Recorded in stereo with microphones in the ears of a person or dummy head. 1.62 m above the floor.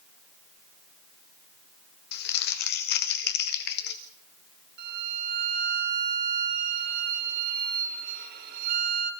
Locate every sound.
2.1 s crumpling: 50° left (ahead or behind), 1.6 m
4.8 s a violin: 45° right (ahead or behind), 2.5 m